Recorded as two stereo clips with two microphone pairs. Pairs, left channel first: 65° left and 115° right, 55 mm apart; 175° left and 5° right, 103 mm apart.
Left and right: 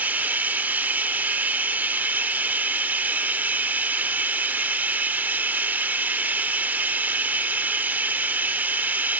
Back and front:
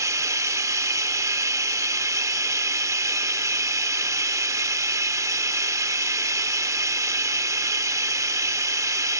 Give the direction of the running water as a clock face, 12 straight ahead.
2 o'clock.